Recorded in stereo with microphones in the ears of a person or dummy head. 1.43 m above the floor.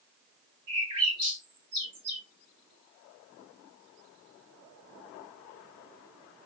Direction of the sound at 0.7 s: 80° right.